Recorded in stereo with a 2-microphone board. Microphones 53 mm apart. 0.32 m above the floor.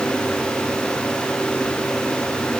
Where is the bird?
I don't hear a bird.